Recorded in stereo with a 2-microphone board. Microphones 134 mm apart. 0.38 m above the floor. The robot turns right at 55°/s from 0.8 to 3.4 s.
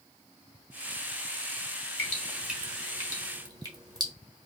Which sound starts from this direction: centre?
Dripping, at 2.0 s.